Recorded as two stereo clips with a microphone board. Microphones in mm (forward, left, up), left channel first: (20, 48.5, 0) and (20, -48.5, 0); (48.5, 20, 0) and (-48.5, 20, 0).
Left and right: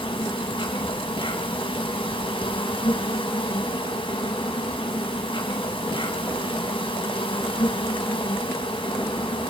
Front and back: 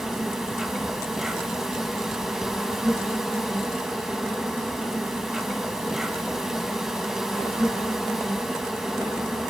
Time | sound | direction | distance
0.0 | an insect | 90° left | 2.5 m